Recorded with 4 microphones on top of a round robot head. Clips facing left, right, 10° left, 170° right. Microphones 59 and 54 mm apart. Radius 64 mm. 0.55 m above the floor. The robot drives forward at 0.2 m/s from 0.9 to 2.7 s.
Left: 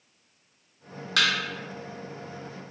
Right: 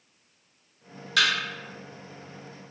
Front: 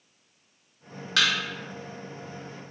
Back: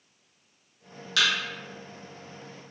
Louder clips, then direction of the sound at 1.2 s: Right 1 dB, front 1 dB; 60° left.